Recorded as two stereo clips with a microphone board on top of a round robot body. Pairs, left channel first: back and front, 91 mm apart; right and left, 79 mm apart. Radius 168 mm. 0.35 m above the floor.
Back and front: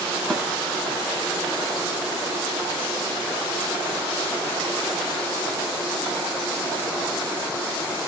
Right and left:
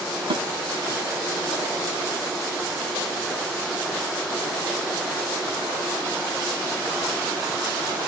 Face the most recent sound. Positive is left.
turn(degrees=95)